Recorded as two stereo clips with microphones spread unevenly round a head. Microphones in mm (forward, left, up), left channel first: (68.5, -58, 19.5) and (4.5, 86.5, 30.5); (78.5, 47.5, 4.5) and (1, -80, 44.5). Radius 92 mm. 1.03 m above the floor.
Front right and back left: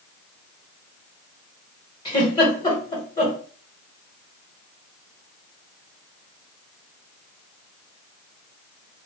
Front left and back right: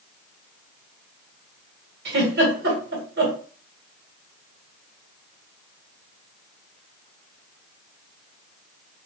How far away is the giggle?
About 1.8 m.